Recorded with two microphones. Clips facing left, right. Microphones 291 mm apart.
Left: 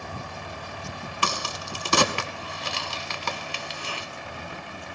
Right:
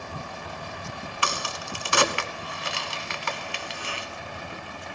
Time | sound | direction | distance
1.2 | a crack | 45° left (ahead or behind) | 0.8 m